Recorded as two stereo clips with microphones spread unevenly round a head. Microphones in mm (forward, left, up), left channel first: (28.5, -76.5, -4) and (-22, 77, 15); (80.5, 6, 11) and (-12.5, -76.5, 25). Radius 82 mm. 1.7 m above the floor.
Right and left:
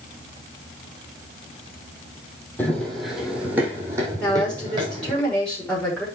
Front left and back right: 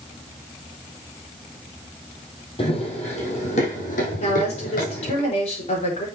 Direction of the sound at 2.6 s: 10° left.